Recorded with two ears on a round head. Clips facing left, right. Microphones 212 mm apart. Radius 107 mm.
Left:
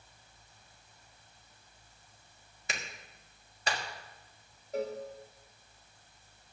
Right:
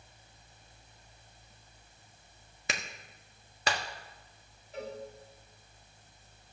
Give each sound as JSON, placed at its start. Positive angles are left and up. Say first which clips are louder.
{"t": 2.7, "sound": "a clap", "louder": "right 3 dB", "side_deg": -55, "distance_m": 1.4}
{"t": 4.7, "sound": "a cowbell", "louder": "left 6 dB", "side_deg": 40, "distance_m": 2.5}